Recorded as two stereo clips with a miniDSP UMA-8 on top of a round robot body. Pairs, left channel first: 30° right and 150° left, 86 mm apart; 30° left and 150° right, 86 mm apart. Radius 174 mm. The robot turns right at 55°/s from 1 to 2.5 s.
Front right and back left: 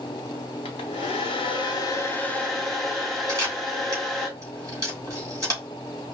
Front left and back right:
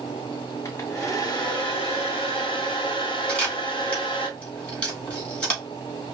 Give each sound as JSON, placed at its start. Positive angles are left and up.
{"t": 0.7, "sound": "a hair dryer", "azimuth_deg": -25, "distance_m": 0.6}
{"t": 3.3, "sound": "a camera shutter", "azimuth_deg": 100, "distance_m": 3.0}